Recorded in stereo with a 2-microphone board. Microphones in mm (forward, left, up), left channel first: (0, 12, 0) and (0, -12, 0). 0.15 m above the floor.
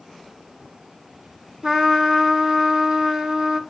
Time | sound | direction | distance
1.6 | a trumpet | 25° right (ahead or behind) | 1.2 m